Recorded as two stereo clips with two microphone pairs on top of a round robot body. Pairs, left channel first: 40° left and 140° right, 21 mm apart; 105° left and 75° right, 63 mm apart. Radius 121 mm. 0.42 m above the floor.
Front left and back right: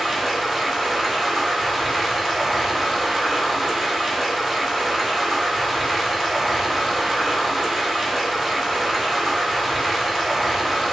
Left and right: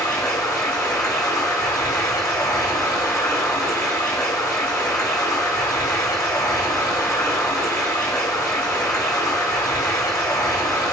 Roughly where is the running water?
Behind left.